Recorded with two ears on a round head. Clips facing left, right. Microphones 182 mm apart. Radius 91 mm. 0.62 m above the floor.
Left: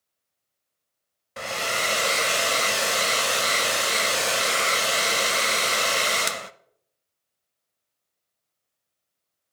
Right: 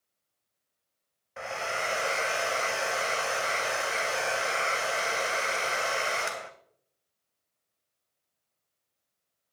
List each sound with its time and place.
1.4 s a hair dryer: 45° left (ahead or behind), 0.5 m